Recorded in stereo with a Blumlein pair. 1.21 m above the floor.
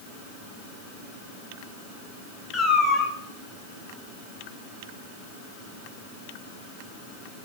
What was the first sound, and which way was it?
A cat meowing, 15° left.